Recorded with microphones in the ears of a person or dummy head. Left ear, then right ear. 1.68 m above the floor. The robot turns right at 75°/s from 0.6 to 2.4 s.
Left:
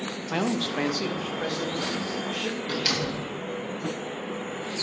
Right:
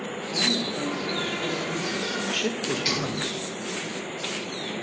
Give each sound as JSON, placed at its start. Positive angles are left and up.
{"t": 0.3, "sound": "a man speaking", "azimuth_deg": 90, "distance_m": 0.6}
{"t": 2.7, "sound": "a door slam", "side_deg": 25, "distance_m": 1.5}